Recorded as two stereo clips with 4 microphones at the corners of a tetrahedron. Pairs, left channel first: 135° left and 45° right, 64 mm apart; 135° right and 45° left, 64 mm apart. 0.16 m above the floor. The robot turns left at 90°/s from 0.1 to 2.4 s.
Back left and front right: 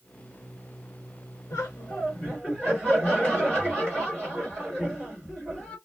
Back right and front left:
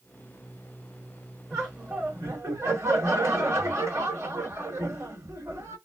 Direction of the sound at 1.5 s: 145° left.